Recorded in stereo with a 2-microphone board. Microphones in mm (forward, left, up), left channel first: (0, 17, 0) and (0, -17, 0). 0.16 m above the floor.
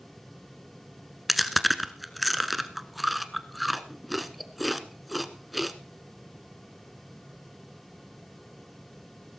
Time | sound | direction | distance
1.3 | chewing | 5° right (ahead or behind) | 1.0 m